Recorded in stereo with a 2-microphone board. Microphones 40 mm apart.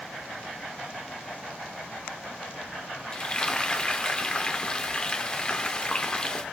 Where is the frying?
20° left (ahead or behind), 1.0 m.